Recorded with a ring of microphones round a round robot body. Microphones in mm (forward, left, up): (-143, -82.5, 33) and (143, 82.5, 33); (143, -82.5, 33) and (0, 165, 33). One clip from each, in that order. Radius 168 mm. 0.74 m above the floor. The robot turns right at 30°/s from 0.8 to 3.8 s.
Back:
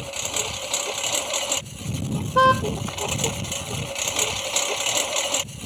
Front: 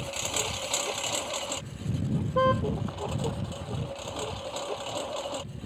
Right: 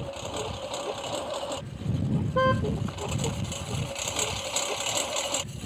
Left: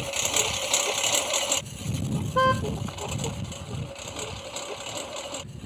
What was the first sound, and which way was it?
A lawn mower, 135° left.